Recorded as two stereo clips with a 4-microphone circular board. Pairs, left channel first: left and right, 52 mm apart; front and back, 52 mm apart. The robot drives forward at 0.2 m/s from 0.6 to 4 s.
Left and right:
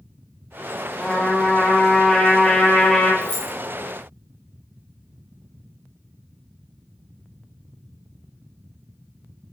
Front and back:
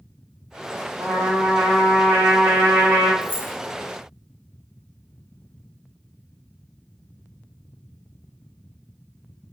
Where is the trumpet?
150° left, 1.8 m; by 3.1 s 160° left, 2 m.